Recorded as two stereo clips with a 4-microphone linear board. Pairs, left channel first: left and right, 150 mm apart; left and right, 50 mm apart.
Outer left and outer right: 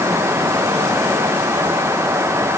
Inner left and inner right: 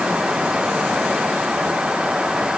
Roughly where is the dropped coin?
No dropped coin in this recording.